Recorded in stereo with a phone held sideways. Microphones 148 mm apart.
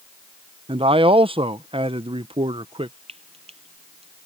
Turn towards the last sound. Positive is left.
turn(degrees=-40)  # may be behind; listen again after turning